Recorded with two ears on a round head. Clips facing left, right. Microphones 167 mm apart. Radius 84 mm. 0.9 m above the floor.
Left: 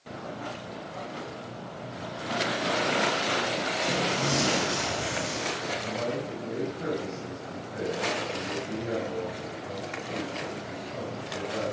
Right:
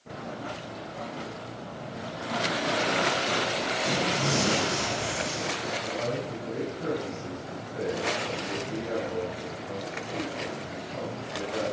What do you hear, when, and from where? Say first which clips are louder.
3.8 s tearing paper: right 1 dB; 5° left (ahead or behind), 9.5 m
5.8 s a man speaking: even; 20° left (ahead or behind), 7.5 m